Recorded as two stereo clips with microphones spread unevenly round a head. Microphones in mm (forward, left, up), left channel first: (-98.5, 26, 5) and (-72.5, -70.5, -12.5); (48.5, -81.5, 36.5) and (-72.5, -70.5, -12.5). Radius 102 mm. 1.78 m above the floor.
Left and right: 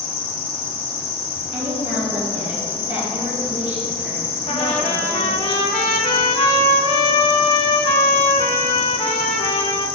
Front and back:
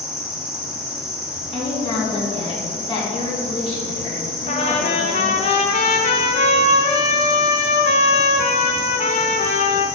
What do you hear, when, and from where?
0.0 s an insect: 115° left, 1.0 m
1.5 s a woman speaking: 50° right, 3.5 m
4.5 s a trumpet: 50° left, 0.5 m